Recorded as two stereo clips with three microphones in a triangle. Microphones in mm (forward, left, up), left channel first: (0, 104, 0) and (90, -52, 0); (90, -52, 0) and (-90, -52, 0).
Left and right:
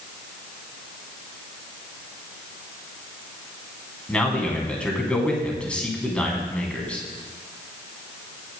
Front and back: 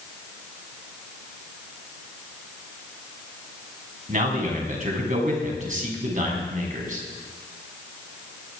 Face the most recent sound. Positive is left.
turn(degrees=-160)